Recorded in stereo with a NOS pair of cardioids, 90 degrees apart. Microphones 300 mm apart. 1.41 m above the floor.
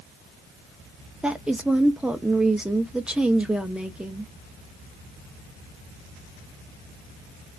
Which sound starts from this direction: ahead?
A woman speaking, at 1.2 s.